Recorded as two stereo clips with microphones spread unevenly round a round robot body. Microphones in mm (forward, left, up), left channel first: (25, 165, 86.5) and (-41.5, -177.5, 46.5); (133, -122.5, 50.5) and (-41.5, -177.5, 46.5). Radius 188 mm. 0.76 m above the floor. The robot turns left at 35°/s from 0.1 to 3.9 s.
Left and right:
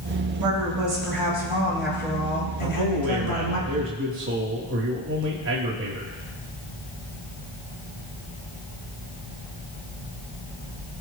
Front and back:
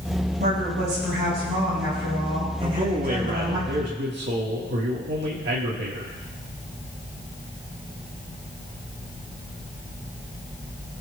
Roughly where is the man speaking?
Right.